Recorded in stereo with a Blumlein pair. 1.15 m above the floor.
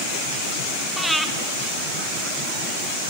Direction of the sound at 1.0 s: Straight ahead.